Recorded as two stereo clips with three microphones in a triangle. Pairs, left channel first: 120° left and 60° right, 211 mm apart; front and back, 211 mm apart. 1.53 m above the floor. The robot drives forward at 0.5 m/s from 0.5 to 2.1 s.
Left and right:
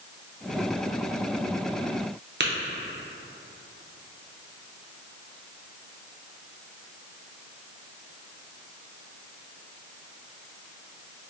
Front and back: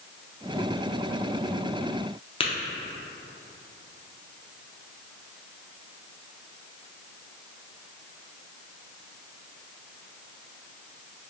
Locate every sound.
2.4 s tapping: 60° right, 0.5 m